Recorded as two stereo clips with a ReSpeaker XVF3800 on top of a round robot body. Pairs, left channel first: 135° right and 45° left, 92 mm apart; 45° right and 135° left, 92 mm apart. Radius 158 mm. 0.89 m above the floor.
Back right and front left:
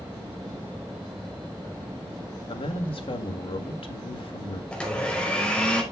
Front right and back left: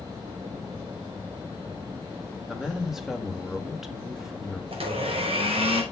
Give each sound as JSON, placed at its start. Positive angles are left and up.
{"t": 2.5, "sound": "a man speaking", "azimuth_deg": -140, "distance_m": 1.9}
{"t": 4.7, "sound": "a blender", "azimuth_deg": 145, "distance_m": 3.5}